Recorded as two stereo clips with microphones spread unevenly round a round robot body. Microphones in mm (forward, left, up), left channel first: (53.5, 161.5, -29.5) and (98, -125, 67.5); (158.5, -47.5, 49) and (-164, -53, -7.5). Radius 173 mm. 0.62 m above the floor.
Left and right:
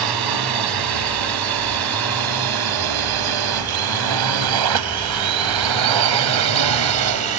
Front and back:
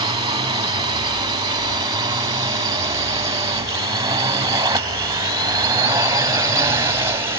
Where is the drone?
105° right; by 7.4 s 100° right.